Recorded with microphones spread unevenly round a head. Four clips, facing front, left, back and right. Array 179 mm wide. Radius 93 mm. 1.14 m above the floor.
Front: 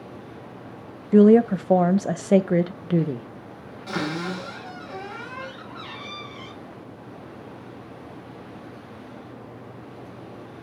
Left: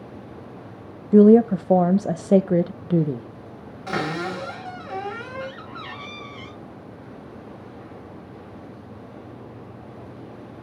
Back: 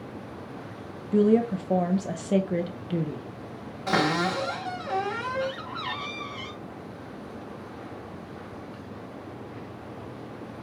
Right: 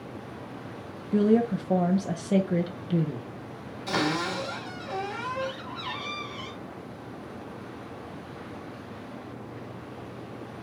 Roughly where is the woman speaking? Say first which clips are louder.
Left 10 dB, front 7 dB; ahead left.